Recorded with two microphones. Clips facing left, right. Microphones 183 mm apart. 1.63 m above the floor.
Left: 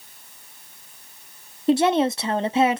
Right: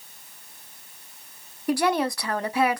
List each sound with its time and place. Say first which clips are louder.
1.7 s a woman speaking: left 5 dB; 25° left (ahead or behind), 0.5 m